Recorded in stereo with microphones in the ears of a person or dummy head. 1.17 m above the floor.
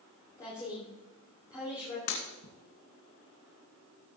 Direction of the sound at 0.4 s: 20° left (ahead or behind).